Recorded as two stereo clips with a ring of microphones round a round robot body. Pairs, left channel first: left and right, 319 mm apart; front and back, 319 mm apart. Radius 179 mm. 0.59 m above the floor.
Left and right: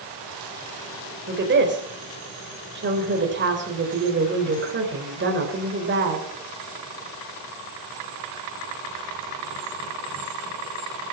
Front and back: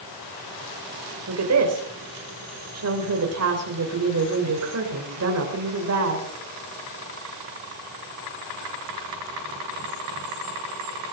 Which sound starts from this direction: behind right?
A woman speaking, at 1.3 s.